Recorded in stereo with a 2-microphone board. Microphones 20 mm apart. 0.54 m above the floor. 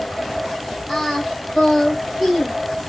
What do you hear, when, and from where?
0.9 s singing: 15° left (ahead or behind), 1.9 m